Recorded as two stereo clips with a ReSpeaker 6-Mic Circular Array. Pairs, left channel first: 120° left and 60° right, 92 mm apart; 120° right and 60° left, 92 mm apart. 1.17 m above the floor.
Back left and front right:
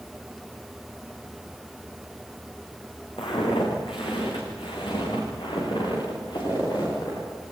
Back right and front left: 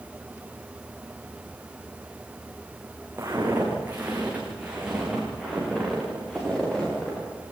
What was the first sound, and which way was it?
Footsteps, 120° left.